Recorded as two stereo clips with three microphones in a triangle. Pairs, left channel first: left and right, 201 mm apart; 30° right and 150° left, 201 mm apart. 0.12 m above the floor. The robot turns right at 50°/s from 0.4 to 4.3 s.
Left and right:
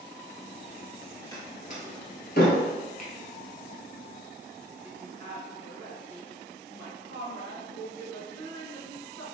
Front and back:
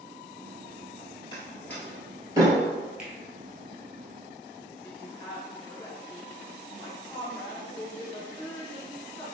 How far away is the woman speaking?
About 1.4 m.